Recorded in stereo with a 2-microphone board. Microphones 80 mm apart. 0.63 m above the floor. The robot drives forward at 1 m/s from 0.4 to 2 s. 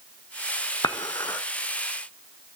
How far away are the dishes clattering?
About 0.9 m.